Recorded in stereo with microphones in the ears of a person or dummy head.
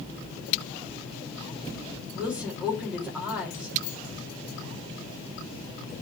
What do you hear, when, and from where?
2.1 s a woman speaking: 15° right (ahead or behind), 3.5 m